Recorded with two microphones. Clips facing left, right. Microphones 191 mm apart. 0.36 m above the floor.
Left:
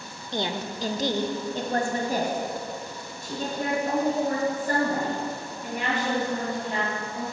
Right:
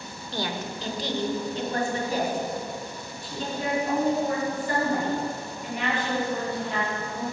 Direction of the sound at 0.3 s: 15° left (ahead or behind).